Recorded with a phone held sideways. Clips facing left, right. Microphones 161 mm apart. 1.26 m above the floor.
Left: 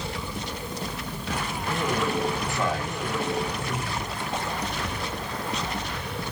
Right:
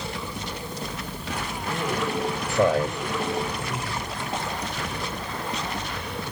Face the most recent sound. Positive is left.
turn(degrees=-65)  # may be behind; listen again after turning